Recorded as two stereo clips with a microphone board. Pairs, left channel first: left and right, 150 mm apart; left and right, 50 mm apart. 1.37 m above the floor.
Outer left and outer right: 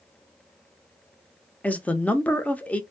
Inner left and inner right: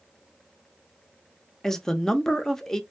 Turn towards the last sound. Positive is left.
turn(degrees=10)  # may be behind; listen again after turning